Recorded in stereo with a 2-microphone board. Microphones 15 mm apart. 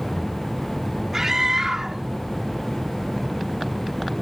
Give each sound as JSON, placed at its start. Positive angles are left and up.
{"t": 1.1, "sound": "a scream", "side_deg": -40}